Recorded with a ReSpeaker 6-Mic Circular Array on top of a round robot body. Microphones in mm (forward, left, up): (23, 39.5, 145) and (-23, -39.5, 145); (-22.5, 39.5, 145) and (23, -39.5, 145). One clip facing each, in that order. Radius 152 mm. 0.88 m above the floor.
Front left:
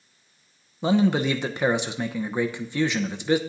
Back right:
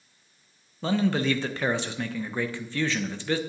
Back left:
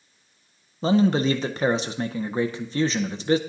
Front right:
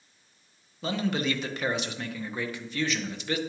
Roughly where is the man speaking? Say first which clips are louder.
Front left 4 dB, back left 9 dB; behind left.